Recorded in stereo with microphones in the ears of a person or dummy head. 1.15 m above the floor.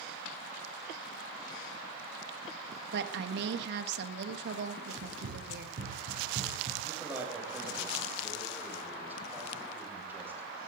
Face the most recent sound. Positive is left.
turn(degrees=-10)  # may be behind; listen again after turning